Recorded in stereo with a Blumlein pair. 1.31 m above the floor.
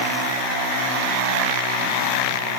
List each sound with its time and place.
Only background noise.